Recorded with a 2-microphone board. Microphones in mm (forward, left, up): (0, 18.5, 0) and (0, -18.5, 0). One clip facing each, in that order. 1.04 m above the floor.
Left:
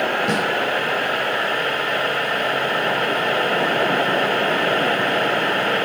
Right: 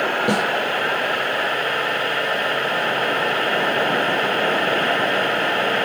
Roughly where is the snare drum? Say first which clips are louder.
Right 1 dB; right.